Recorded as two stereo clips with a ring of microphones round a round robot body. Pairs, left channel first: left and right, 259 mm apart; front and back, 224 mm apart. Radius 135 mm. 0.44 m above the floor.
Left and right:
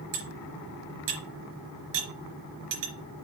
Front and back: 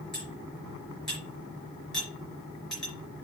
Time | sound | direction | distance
0.1 | cutlery clinking | 90° right | 4 m